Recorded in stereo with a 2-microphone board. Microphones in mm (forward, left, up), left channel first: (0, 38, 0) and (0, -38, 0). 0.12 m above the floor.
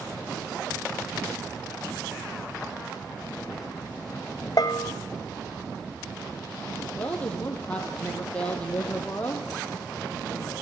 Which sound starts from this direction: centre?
A woman speaking, at 7.0 s.